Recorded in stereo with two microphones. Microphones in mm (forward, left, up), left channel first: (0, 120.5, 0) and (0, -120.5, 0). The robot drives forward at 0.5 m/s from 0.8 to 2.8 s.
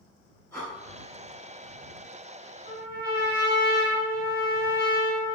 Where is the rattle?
I don't hear a rattle.